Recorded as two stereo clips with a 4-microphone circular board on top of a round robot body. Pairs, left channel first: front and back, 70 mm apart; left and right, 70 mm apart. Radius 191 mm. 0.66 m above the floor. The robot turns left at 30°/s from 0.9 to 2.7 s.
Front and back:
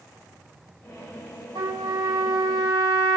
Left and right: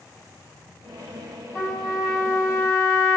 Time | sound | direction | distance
1.6 | a trumpet | straight behind | 4.5 m